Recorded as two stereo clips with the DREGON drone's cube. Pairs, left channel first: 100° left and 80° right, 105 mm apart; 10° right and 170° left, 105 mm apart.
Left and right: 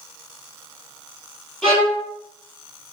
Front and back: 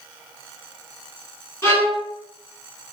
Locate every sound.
1.6 s a violin: 25° left, 1.2 m